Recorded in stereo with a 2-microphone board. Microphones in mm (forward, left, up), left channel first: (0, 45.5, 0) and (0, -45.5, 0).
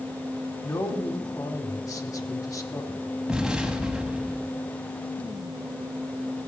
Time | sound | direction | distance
0.6 | a man speaking | 35° left (ahead or behind) | 1.3 m
3.3 | an explosion | 10° right (ahead or behind) | 1.2 m